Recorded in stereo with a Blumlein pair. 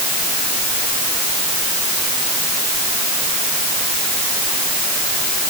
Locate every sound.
Only background noise.